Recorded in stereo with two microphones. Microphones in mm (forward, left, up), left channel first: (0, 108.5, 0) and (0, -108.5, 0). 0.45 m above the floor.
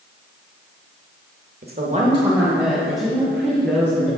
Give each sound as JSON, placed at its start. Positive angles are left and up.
{"t": 1.6, "sound": "a woman speaking", "side_deg": -45, "distance_m": 1.2}